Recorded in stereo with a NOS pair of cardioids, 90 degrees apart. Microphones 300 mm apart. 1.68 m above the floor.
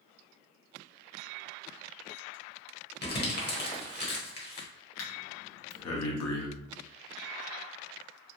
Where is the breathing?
60° left, 0.9 m.